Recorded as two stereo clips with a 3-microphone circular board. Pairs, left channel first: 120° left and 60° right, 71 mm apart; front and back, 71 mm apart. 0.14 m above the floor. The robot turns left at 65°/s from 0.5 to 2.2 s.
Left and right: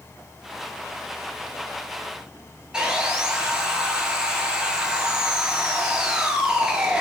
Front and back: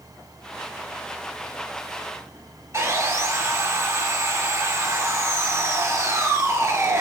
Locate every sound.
2.7 s sawing: 135° right, 0.5 m